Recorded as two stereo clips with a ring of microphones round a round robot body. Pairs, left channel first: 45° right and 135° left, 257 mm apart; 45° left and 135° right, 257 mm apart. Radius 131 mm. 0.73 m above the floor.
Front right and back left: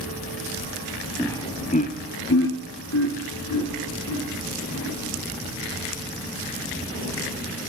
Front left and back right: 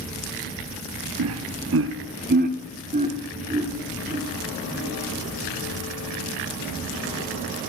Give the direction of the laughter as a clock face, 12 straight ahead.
4 o'clock.